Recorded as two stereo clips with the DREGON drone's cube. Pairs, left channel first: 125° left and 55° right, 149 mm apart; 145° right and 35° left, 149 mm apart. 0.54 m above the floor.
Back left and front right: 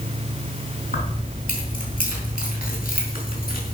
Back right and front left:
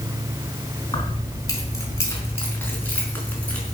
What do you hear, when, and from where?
0.9 s keys jangling: 150° left, 4 m; by 3.8 s 130° left, 5 m